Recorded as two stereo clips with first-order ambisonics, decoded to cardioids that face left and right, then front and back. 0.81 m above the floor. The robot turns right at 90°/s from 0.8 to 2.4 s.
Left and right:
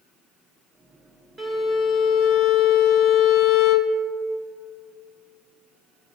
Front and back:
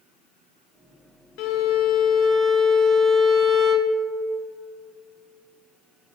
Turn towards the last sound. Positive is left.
turn(degrees=75)